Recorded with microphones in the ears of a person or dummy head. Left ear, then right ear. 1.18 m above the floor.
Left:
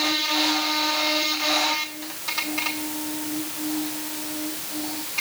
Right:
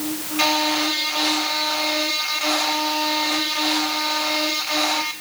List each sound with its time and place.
Only background noise.